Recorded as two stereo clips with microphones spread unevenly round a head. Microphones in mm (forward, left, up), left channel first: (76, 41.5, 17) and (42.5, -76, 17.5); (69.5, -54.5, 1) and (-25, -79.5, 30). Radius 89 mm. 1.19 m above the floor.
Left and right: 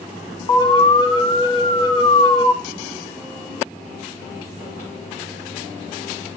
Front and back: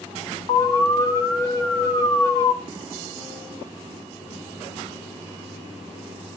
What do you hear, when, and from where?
0.5 s an alarm: 40° left, 1.6 m